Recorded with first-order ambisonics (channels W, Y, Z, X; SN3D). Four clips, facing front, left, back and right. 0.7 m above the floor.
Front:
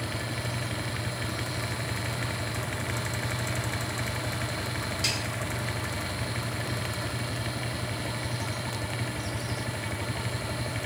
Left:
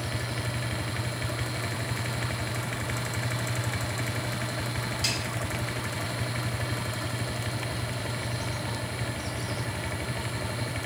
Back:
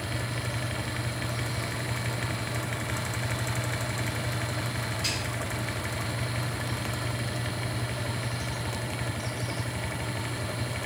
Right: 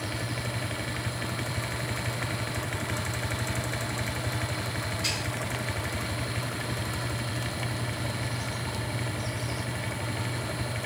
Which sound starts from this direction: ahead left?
A snare drum, at 5.0 s.